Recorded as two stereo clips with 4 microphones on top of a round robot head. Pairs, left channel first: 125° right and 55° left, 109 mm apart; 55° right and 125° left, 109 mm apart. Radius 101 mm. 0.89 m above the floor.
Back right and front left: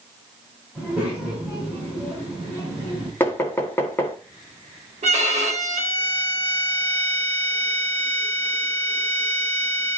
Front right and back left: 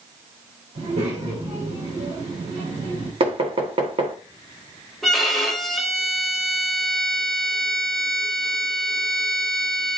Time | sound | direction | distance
0.8 | a child speaking | 135° left | 5 m
3.2 | knocking | 165° left | 1.5 m
5.0 | a violin | 35° left | 1.9 m